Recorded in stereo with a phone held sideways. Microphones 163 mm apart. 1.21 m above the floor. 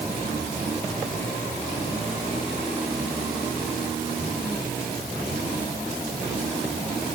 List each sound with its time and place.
Only background noise.